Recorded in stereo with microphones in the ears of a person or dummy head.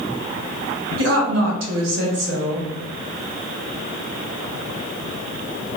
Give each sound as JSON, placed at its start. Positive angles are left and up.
{"t": 1.0, "sound": "a woman speaking", "side_deg": -70, "distance_m": 1.0}